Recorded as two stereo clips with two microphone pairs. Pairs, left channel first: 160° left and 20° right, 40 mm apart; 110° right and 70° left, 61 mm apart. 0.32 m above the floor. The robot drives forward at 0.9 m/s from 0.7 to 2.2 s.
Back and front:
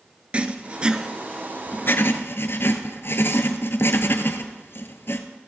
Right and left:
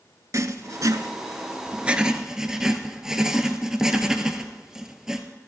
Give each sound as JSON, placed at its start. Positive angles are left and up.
{"t": 0.3, "sound": "writing", "azimuth_deg": 40, "distance_m": 0.7}